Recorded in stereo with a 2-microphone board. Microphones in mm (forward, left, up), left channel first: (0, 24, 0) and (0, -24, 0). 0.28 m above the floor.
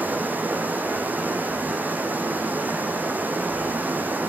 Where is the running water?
40° right (ahead or behind), 1.5 m.